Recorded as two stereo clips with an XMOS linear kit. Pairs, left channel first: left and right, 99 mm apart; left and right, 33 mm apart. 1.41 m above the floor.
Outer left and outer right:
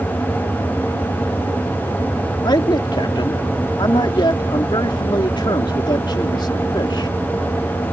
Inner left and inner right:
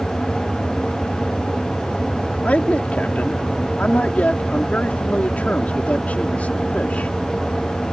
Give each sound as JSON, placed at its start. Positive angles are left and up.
{"t": 2.5, "sound": "a man speaking", "side_deg": 50}